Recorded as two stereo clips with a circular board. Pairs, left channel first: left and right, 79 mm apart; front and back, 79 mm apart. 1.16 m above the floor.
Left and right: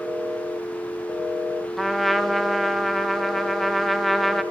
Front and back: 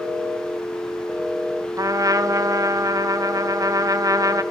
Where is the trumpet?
175° left, 0.7 m.